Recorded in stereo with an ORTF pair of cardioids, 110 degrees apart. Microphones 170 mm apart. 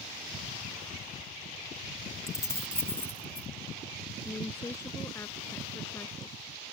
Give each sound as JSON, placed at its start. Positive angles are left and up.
{"t": 2.3, "sound": "keys jangling", "azimuth_deg": 20}
{"t": 4.2, "sound": "a woman speaking", "azimuth_deg": 15}